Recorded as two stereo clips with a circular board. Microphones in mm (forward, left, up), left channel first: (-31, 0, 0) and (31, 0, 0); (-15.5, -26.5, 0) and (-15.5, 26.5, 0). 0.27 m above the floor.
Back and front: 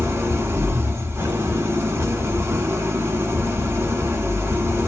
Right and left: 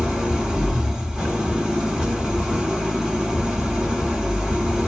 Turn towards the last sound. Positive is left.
turn(degrees=20)